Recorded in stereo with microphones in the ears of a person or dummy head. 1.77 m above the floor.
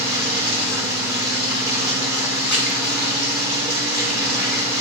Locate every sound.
0.0 s running water: 5° right (ahead or behind), 5.5 m
2.5 s crumpling: 10° left (ahead or behind), 6 m